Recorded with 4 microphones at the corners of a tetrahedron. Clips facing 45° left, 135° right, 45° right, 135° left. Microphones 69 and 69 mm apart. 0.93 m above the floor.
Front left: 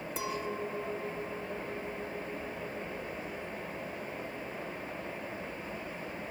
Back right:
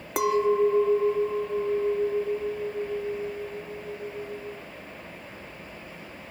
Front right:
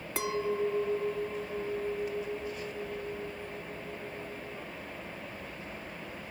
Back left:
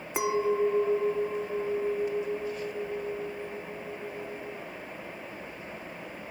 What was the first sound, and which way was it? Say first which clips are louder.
A clink: back right 16 dB, back left 5 dB; 155° right.